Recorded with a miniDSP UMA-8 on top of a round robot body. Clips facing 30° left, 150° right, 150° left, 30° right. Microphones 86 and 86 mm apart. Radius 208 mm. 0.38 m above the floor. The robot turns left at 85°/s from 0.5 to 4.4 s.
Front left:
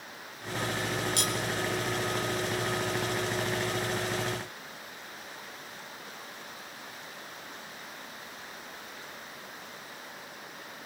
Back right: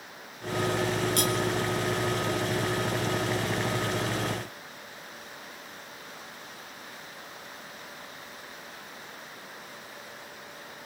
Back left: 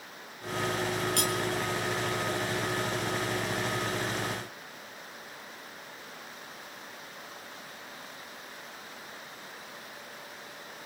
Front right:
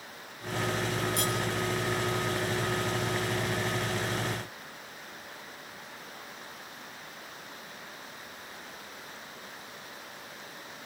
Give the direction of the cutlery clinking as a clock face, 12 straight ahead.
6 o'clock.